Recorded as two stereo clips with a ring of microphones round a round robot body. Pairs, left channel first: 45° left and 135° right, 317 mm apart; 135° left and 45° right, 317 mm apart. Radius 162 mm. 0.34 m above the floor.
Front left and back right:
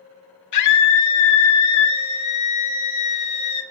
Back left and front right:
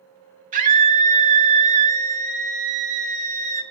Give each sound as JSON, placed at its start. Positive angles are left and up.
{"t": 0.5, "sound": "a scream", "azimuth_deg": 20, "distance_m": 2.5}